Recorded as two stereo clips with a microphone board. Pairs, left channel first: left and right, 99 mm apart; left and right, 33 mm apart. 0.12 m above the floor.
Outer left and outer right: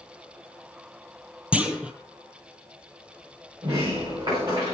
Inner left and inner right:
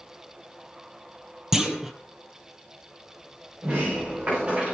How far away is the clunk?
About 1.4 m.